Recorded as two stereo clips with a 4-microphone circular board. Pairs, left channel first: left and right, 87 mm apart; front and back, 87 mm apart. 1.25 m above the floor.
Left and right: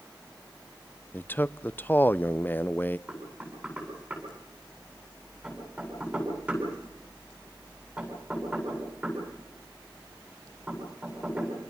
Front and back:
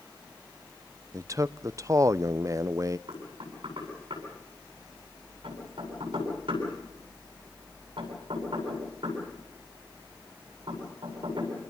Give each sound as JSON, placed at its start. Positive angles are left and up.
{"t": 1.1, "sound": "a man speaking", "azimuth_deg": 145, "distance_m": 0.6}
{"t": 3.1, "sound": "knocking", "azimuth_deg": -160, "distance_m": 9.0}